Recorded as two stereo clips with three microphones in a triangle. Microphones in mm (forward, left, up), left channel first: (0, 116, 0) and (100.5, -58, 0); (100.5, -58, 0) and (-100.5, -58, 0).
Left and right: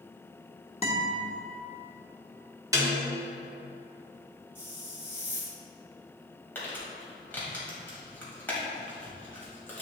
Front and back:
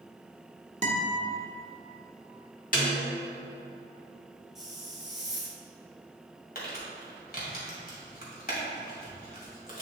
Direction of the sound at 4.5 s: 90° left.